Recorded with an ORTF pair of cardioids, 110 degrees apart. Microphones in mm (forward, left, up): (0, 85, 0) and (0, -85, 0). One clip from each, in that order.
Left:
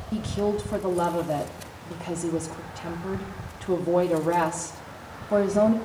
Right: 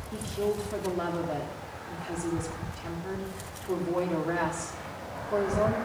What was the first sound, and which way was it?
A woman speaking, 45° left.